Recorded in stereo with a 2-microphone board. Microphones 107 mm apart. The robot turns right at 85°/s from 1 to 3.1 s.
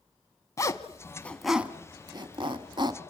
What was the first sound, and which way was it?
A zipper, 30° left (ahead or behind).